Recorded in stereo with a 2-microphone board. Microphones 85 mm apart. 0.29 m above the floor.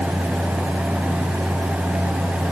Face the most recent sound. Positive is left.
No sound to turn to.